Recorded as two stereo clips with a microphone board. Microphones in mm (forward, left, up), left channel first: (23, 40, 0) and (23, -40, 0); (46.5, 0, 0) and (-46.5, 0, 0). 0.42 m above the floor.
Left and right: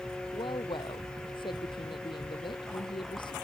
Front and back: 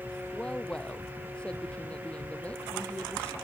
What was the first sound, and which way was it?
A woman speaking, 80° left.